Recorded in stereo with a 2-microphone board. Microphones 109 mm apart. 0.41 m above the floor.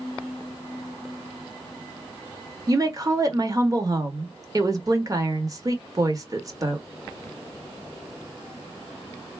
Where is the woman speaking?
35° right (ahead or behind), 1.0 m.